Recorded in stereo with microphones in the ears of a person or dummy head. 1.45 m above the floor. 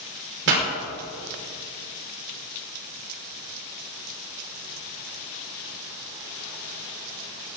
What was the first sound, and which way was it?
A pop, 65° right (ahead or behind).